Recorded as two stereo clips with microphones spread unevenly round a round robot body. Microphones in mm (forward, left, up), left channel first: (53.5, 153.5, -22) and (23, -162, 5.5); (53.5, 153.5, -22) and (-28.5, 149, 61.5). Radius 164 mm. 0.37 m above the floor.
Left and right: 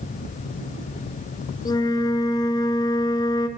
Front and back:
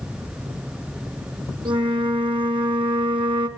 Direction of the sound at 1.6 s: 165° left.